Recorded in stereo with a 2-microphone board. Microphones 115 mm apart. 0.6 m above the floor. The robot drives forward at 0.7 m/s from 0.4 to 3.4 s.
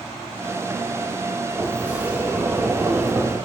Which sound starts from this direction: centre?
A sliding door, at 1.6 s.